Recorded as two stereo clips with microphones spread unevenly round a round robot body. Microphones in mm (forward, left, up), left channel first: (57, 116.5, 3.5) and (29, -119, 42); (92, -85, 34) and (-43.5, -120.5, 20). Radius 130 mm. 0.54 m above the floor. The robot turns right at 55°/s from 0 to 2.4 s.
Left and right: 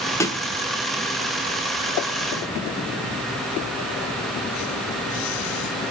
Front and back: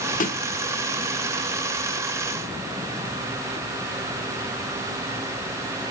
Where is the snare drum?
10° left, 1.4 m; by 0.4 s 20° left, 1.4 m.